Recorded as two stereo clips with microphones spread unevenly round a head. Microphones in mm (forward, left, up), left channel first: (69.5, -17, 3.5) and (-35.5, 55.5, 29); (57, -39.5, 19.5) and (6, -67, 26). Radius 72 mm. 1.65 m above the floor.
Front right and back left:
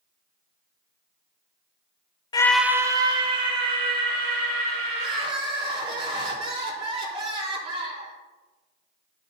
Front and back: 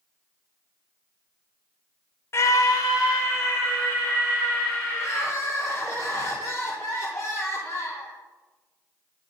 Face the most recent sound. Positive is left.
turn(degrees=95)